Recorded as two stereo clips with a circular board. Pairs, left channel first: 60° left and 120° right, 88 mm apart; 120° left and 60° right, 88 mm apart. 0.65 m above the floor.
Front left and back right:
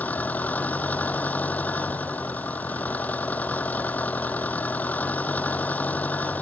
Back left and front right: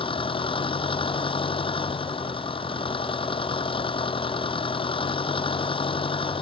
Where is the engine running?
130° left.